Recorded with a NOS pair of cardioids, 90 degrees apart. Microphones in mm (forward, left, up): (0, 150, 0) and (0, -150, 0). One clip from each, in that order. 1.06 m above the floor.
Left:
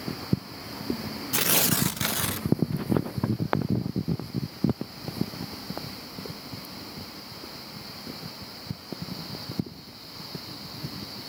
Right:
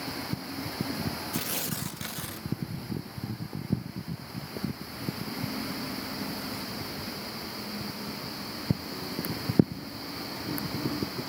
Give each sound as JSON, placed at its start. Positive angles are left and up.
{"t": 1.3, "sound": "tearing paper", "azimuth_deg": 50, "distance_m": 0.8}